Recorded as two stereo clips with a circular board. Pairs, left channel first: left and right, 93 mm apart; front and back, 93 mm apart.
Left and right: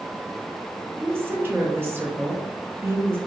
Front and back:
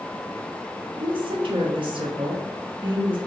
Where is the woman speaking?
155° right, 0.6 m.